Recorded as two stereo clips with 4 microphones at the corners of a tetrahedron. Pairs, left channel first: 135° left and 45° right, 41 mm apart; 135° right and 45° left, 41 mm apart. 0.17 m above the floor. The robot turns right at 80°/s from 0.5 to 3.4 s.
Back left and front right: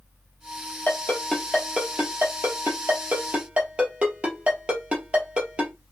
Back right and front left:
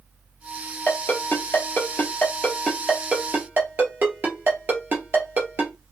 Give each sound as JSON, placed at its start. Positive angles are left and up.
{"t": 0.9, "sound": "a ringtone", "azimuth_deg": 175, "distance_m": 1.8}